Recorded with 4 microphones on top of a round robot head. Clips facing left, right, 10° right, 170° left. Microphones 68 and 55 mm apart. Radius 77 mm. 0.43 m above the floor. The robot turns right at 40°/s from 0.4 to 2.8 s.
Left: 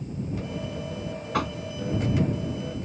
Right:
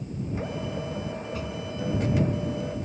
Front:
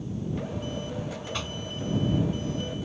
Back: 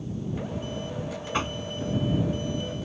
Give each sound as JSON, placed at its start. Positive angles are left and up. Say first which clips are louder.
{"t": 1.3, "sound": "knocking", "louder": "left 6 dB, back 5 dB", "azimuth_deg": 110}